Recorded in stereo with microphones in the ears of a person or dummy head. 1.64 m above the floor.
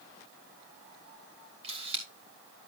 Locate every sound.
1.6 s a camera shutter: 25° right (ahead or behind), 2.5 m